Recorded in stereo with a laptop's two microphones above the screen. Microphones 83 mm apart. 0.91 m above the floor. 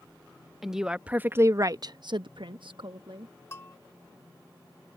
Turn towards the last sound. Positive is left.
turn(degrees=30)  # may be behind; listen again after turning